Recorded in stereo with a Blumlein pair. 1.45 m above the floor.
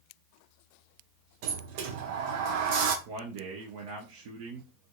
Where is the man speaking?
50° right, 0.7 m.